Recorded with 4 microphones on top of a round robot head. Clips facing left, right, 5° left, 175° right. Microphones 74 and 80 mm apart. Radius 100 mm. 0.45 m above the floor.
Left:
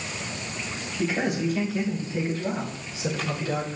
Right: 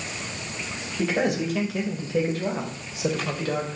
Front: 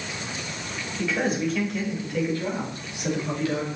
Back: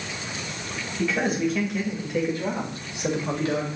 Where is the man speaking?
80° right, 2.5 m; by 3.8 s 120° right, 3 m.